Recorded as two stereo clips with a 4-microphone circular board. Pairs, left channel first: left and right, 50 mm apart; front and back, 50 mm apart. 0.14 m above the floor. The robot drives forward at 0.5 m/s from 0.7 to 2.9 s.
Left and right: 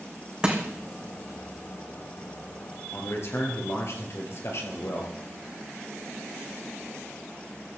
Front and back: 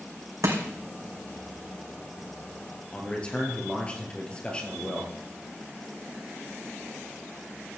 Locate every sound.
0.4 s crushing: 165° right, 2.5 m
2.9 s a man speaking: 70° left, 3 m